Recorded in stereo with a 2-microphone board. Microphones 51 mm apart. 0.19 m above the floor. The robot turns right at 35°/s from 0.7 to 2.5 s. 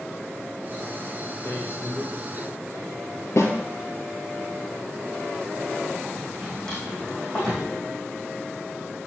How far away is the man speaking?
About 4 m.